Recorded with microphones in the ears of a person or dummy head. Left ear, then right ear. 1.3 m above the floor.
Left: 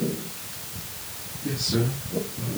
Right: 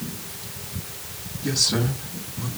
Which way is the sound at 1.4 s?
80° right.